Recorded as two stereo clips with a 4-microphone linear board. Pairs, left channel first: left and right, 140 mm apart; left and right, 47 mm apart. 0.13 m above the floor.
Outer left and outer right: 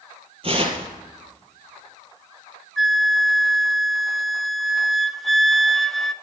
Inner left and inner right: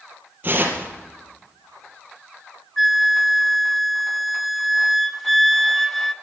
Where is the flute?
Centre (ahead or behind), 0.7 m.